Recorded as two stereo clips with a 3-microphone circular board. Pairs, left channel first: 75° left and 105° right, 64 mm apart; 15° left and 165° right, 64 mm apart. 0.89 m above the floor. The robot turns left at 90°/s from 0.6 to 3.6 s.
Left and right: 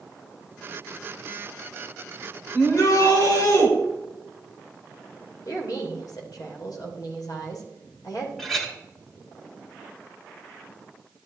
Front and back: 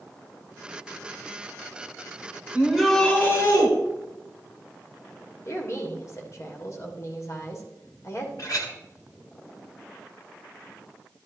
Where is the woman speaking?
55° left, 3 m.